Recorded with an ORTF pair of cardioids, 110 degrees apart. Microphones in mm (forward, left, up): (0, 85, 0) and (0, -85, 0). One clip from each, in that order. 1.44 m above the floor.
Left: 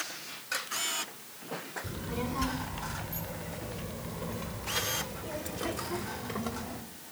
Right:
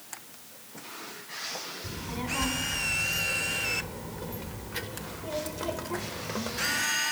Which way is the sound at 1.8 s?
5° right.